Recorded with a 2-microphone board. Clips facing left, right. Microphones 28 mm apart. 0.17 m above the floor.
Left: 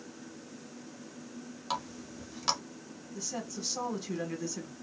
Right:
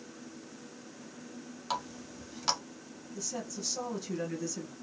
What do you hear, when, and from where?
1.7 s a running tap: centre (ahead or behind), 0.9 m
3.1 s a woman speaking: 15° left (ahead or behind), 1.1 m